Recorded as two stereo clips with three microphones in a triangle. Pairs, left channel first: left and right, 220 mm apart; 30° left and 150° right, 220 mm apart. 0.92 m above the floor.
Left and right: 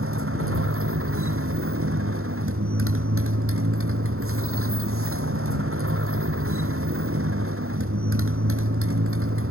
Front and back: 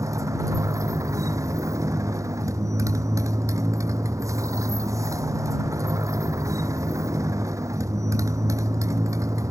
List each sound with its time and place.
0.0 s a motorcycle: 75° right